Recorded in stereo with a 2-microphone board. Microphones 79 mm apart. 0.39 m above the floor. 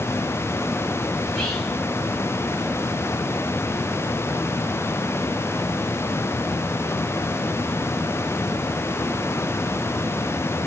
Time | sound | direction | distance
1.2 | whispering | 10° left (ahead or behind) | 1.1 m